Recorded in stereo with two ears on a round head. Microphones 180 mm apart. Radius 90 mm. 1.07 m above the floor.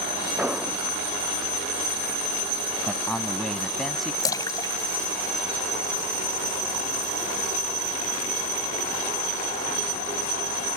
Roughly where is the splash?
Centre.